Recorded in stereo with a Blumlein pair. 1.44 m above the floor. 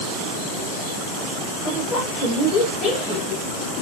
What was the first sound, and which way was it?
A woman speaking, 25° left.